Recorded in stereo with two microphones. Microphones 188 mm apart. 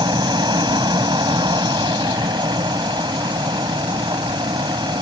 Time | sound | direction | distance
0.0 | an aircraft | 25° right (ahead or behind) | ?